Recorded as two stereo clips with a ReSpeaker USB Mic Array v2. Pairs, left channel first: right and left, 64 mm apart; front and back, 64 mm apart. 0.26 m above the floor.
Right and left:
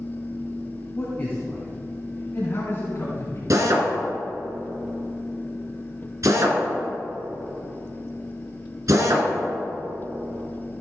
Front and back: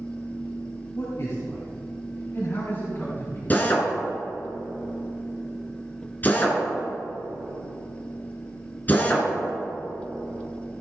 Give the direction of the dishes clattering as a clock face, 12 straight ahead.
No dishes clattering in this recording.